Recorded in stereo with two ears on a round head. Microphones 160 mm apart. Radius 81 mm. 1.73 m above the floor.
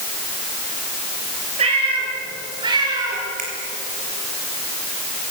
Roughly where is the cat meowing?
Right.